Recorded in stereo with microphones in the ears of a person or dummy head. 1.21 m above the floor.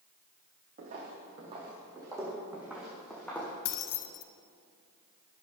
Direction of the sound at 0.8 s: 40° right (ahead or behind).